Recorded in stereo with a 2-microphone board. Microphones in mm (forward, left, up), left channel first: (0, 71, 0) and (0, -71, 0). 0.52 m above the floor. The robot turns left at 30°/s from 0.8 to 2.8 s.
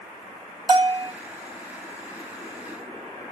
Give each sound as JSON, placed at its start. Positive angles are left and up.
{"t": 0.7, "sound": "a bell", "side_deg": -35, "distance_m": 0.6}